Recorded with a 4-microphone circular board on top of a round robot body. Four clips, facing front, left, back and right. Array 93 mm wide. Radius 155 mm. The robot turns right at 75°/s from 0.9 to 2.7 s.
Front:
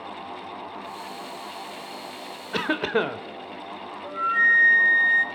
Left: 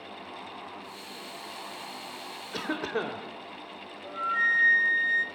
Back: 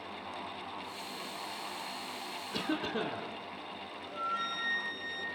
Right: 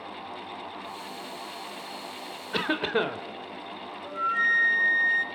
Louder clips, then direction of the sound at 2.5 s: Right 5 dB, front 10 dB; 30° right.